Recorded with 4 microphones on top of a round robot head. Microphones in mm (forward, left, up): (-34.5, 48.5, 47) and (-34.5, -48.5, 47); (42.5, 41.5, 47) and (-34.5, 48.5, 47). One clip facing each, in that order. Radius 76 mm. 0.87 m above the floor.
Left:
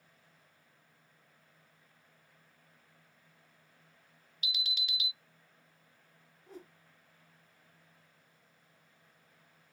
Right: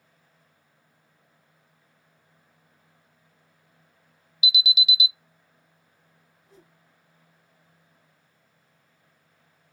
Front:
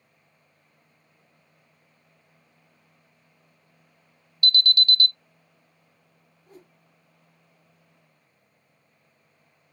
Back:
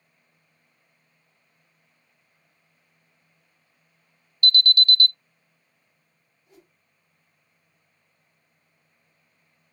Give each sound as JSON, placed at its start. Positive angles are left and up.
{"t": 4.4, "sound": "an alarm", "azimuth_deg": -170, "distance_m": 0.6}
{"t": 6.5, "sound": "a whoosh", "azimuth_deg": 35, "distance_m": 0.6}